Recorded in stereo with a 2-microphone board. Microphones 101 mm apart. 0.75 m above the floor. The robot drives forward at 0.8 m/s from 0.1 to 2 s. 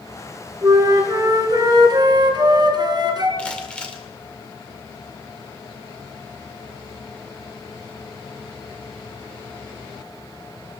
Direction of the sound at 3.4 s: 10° left (ahead or behind).